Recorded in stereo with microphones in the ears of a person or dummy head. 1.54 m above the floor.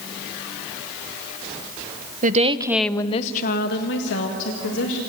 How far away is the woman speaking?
About 1.2 m.